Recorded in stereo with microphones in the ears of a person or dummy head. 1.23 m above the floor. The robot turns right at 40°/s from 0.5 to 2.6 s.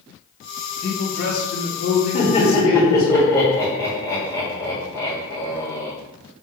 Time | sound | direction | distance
0.8 | a man speaking | 40° left | 1.9 m
2.1 | laughter | 30° left (ahead or behind) | 1.6 m